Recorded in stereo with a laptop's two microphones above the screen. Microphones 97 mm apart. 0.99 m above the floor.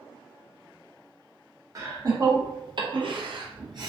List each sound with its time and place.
1.8 s laughter: 40° right (ahead or behind), 1.2 m; by 3.9 s 45° right (ahead or behind), 0.7 m